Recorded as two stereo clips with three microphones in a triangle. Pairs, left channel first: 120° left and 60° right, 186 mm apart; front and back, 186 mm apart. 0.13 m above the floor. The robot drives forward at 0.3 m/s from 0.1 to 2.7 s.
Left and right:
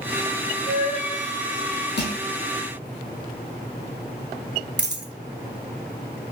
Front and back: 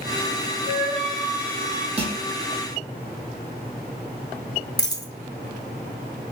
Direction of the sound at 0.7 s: 150° left.